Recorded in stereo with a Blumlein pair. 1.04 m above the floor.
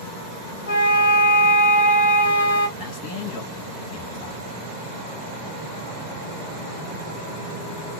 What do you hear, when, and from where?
0.7 s a flute: 65° left, 1.8 m
2.8 s a man speaking: 45° left, 1.3 m